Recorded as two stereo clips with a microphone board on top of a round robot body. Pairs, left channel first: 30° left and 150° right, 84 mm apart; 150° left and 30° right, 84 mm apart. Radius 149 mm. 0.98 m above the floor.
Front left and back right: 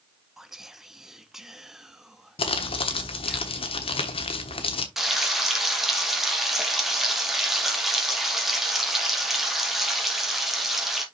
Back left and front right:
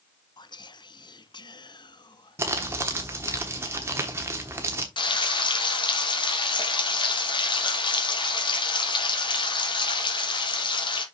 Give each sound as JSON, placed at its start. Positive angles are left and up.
{"t": 0.4, "sound": "whispering", "azimuth_deg": 125, "distance_m": 0.9}
{"t": 2.4, "sound": "crumpling", "azimuth_deg": 35, "distance_m": 1.0}
{"t": 5.0, "sound": "frying", "azimuth_deg": 125, "distance_m": 2.0}